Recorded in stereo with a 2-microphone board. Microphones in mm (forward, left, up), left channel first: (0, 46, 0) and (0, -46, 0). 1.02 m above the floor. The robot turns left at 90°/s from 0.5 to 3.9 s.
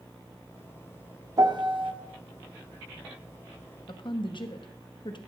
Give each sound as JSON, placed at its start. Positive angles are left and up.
{"t": 1.4, "sound": "a piano", "azimuth_deg": -50, "distance_m": 0.8}
{"t": 3.9, "sound": "a woman speaking", "side_deg": 60, "distance_m": 1.1}